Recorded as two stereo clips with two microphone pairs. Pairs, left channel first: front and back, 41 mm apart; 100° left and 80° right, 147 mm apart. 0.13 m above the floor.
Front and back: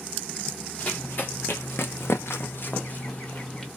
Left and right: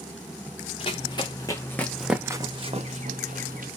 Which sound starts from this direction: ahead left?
Running footsteps, at 0.8 s.